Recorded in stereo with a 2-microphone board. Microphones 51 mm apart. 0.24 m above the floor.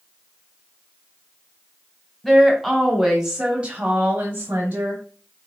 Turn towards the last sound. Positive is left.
turn(degrees=-40)  # may be behind; listen again after turning